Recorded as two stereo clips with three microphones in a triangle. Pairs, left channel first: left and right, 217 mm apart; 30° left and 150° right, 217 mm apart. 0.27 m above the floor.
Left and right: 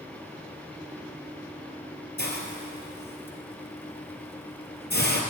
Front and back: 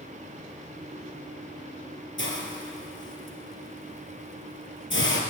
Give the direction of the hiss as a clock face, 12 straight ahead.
10 o'clock.